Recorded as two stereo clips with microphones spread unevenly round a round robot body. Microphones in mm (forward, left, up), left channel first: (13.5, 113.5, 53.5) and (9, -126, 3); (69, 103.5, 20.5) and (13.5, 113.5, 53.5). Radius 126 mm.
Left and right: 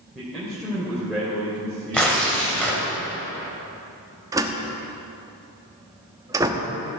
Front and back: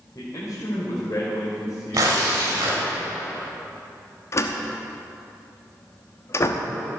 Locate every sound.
0.1 s a man speaking: straight ahead, 3 m
1.9 s tearing paper: 175° left, 2.5 m
4.3 s a door slam: 20° right, 1.0 m